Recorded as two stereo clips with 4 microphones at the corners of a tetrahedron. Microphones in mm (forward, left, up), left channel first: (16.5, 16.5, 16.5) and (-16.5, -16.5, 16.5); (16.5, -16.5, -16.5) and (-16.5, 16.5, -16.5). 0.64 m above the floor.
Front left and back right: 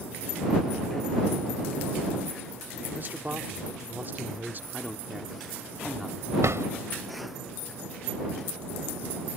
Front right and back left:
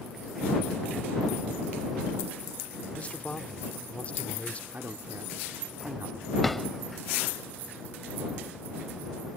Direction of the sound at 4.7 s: 130° left.